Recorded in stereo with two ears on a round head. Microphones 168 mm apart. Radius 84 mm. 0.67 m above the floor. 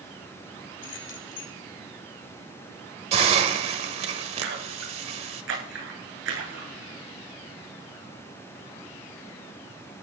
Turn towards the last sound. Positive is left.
turn(degrees=-70)  # may be behind; listen again after turning